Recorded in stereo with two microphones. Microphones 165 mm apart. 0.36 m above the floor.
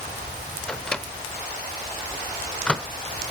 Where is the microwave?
5° left (ahead or behind), 0.6 m.